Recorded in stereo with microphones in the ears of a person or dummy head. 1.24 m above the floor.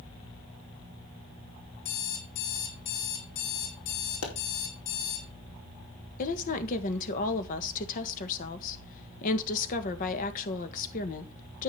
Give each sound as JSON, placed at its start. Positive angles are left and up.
{"t": 1.9, "sound": "an alarm clock", "side_deg": 55, "distance_m": 3.0}
{"t": 4.2, "sound": "a pop", "side_deg": 75, "distance_m": 4.0}
{"t": 6.2, "sound": "a woman speaking", "side_deg": 45, "distance_m": 1.6}